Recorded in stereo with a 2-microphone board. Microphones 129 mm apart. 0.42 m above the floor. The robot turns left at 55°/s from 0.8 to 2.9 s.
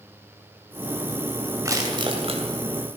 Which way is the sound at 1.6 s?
25° right (ahead or behind).